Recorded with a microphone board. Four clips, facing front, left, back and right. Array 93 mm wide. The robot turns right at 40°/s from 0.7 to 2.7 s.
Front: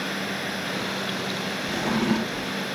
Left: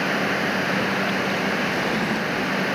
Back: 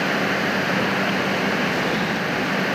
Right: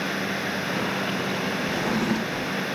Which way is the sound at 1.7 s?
30° right.